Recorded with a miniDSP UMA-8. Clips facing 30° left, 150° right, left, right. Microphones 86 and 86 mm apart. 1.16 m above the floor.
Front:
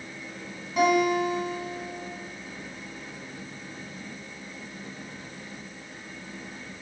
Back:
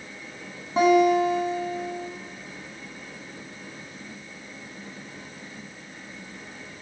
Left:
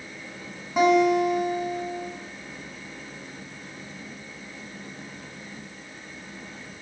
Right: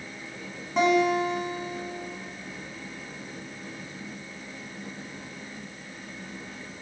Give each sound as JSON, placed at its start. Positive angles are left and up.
{"t": 0.8, "sound": "a guitar", "azimuth_deg": 170, "distance_m": 1.4}